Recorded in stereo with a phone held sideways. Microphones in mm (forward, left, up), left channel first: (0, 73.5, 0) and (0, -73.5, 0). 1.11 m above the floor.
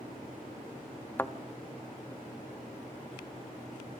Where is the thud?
15° left (ahead or behind), 0.6 m.